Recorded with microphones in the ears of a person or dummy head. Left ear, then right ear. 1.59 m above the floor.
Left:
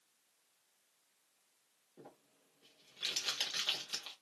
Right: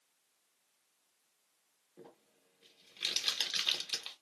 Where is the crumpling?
15° right (ahead or behind), 0.9 m.